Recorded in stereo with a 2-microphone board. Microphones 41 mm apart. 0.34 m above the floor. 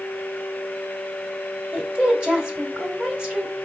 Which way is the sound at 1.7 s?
35° right (ahead or behind).